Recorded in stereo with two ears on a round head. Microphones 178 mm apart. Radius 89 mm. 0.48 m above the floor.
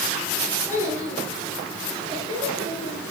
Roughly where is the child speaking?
Centre.